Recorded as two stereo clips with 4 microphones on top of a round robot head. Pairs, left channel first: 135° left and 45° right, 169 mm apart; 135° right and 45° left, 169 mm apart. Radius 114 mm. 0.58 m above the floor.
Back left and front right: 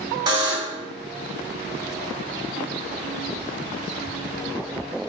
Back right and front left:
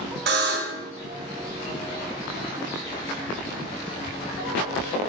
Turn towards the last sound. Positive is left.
turn(degrees=20)